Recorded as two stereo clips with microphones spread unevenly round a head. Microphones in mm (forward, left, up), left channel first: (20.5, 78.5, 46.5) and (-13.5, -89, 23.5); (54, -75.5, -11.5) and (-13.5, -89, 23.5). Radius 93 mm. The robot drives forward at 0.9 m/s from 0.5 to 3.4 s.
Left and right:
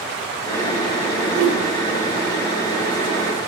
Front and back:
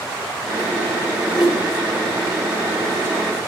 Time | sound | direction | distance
1.3 | a whoosh | 85° right | 6 m